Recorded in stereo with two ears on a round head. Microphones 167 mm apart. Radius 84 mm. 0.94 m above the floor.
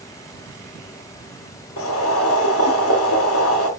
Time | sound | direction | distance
1.8 | boiling | 85° left | 5.5 m